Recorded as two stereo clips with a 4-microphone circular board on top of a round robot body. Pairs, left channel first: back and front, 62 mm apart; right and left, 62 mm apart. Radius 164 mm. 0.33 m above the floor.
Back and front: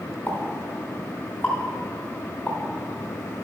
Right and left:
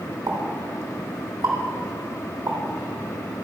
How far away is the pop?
About 3 m.